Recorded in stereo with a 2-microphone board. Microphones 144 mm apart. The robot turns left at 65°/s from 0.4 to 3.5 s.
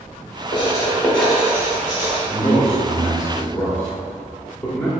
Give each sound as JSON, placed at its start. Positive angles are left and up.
{"t": 0.5, "sound": "writing", "side_deg": 35, "distance_m": 0.9}
{"t": 2.3, "sound": "a man speaking", "side_deg": 25, "distance_m": 0.7}